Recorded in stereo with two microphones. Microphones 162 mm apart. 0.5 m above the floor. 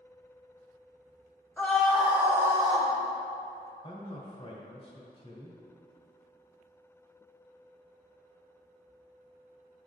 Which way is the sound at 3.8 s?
35° left (ahead or behind).